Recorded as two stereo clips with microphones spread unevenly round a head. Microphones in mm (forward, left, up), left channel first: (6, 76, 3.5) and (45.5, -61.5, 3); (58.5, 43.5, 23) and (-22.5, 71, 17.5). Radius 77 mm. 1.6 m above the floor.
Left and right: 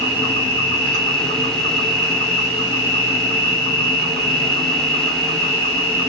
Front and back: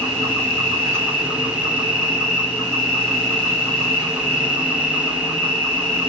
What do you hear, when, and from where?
0.0 s an insect: 105° right, 0.9 m